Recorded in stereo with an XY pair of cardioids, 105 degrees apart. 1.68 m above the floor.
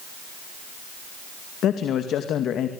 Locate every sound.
1.6 s a man speaking: 70° left, 2 m